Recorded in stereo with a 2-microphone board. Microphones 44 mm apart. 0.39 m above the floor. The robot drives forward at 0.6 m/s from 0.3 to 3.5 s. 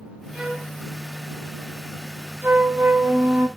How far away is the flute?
About 1.2 m.